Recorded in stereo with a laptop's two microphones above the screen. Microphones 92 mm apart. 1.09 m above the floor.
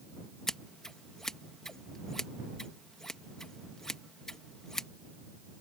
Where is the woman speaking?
I don't hear a woman speaking.